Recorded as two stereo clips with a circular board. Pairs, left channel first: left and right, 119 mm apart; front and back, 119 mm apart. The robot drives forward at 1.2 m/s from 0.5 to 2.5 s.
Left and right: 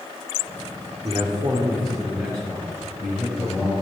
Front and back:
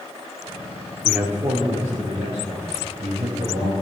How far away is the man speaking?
About 1.0 m.